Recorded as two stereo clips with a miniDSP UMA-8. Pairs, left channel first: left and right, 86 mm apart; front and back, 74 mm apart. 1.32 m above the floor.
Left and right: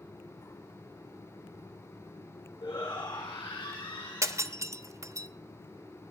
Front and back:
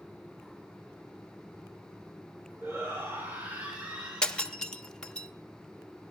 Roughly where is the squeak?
I don't hear a squeak.